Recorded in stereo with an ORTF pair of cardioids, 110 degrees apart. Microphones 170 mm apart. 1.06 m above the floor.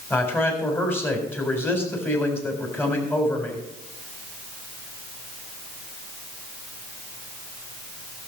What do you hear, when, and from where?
0.1 s a man speaking: 10° left, 4 m